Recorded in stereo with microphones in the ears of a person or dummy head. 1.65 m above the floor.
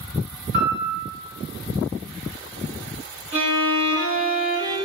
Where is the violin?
25° right (ahead or behind), 1.1 m.